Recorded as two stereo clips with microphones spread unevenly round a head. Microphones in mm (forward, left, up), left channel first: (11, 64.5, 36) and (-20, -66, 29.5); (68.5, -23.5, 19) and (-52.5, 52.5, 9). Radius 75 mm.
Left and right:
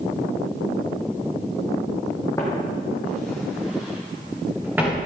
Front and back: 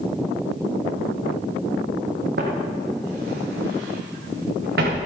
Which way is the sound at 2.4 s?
145° left.